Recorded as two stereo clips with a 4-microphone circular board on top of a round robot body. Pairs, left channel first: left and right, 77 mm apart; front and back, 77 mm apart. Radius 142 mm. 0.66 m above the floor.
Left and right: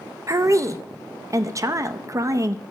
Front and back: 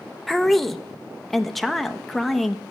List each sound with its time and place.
0.3 s a woman speaking: 90° right, 0.6 m